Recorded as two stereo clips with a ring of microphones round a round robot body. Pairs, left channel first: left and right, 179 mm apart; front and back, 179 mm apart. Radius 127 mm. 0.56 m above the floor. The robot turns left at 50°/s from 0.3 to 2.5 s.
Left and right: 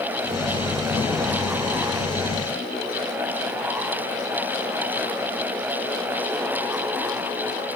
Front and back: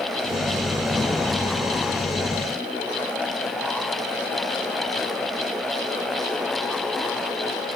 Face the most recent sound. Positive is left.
No sound to turn to.